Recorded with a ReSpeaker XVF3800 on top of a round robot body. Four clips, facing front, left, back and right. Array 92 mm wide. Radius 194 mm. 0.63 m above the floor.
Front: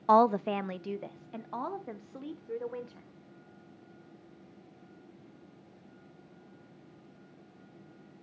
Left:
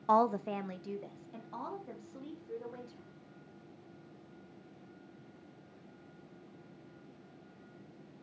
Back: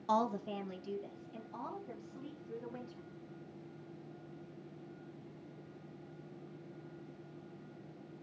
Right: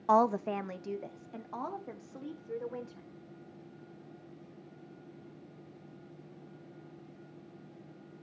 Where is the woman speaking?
15° right, 0.6 m; by 3.1 s 20° right, 3 m.